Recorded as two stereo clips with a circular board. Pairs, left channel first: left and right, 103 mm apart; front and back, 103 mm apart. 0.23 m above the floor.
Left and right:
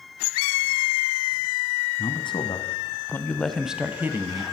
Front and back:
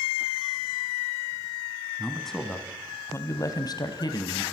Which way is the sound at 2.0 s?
90° left.